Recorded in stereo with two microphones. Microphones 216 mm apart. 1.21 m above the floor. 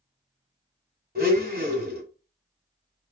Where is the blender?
45° right (ahead or behind), 1.9 m.